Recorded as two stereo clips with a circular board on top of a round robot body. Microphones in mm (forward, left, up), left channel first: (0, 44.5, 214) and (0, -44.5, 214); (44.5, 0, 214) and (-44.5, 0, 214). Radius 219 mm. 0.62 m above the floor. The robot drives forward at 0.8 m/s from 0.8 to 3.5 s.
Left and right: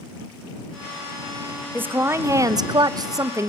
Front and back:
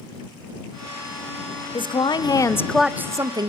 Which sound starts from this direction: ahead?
A woman speaking, at 1.7 s.